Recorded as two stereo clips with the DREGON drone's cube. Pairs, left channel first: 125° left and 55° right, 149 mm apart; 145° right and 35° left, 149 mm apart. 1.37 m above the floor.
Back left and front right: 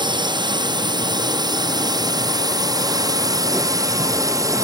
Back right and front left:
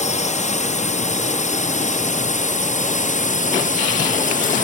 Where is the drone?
115° right; by 4.7 s 125° right.